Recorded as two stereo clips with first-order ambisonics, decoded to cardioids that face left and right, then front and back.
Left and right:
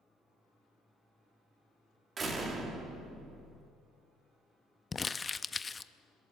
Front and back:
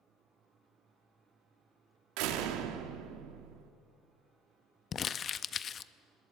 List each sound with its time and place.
2.2 s a door slam: 160° right, 2.0 m
4.9 s crumpling: 25° left, 0.5 m